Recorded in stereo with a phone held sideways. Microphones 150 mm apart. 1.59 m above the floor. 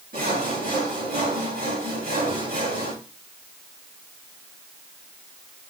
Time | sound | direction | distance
0.1 | sawing | 75° right (ahead or behind) | 5 m